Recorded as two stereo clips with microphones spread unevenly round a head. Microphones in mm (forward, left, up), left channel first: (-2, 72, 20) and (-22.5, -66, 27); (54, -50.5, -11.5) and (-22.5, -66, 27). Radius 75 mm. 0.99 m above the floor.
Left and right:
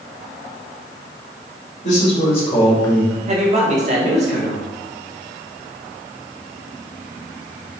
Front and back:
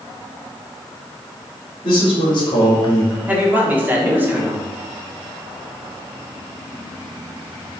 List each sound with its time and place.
1.8 s a man speaking: 40° left, 1.8 m; by 3.2 s 10° right, 0.8 m
3.3 s a man speaking: 85° right, 1.0 m